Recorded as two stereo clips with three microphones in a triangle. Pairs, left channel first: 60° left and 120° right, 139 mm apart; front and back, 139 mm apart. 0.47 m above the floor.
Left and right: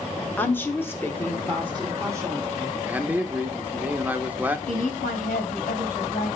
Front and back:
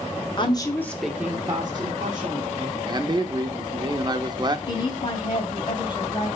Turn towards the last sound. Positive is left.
turn(degrees=60)